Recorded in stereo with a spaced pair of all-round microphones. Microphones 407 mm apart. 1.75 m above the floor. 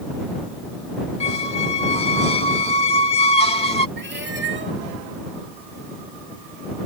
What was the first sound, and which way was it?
A squeak, 15° left (ahead or behind).